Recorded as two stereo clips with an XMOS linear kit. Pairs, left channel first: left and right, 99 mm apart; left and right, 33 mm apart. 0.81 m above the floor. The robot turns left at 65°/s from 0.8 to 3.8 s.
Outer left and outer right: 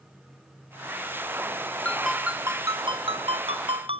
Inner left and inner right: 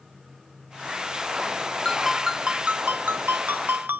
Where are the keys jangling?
No keys jangling in this recording.